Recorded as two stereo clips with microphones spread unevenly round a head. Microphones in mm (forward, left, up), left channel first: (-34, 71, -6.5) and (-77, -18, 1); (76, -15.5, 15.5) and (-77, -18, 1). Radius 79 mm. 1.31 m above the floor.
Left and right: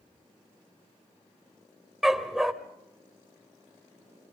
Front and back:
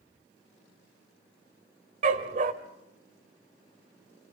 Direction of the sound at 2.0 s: 160° left.